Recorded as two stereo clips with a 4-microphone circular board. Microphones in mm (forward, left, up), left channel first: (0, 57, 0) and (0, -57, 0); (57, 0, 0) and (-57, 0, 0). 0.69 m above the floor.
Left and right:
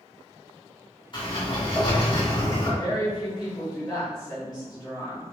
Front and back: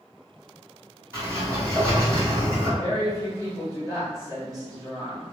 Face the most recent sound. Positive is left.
turn(degrees=130)